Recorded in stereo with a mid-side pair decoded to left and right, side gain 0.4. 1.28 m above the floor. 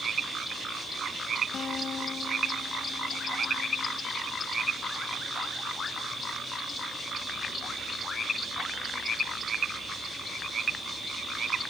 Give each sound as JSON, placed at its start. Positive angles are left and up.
{"t": 1.5, "sound": "a guitar", "azimuth_deg": 55}